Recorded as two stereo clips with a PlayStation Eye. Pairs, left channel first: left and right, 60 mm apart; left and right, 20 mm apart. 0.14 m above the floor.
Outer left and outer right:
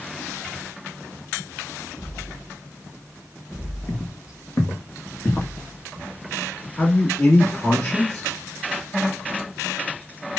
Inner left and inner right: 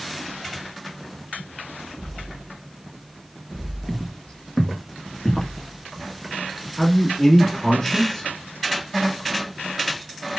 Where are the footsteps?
75° left (ahead or behind), 0.9 m; by 6.7 s 25° left (ahead or behind), 2 m.